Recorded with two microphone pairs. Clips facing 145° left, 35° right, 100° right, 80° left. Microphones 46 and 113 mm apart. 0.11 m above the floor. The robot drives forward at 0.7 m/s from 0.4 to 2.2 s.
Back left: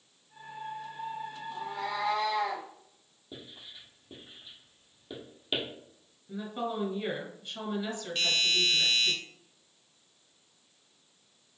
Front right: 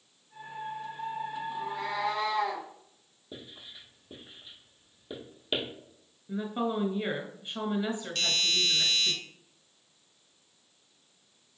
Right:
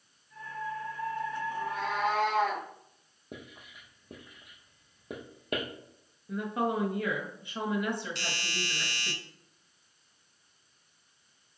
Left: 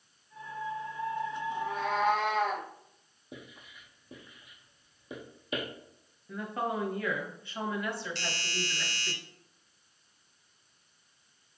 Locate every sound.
1.5 s a cat meowing: 110° right, 2.5 m; by 2.7 s 115° right, 3 m
3.3 s writing: 120° right, 1.6 m
6.3 s a woman speaking: 55° right, 1.2 m
8.2 s a doorbell: 175° left, 1.6 m